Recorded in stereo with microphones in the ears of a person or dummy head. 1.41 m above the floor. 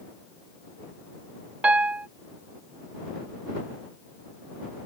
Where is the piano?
10° right (ahead or behind).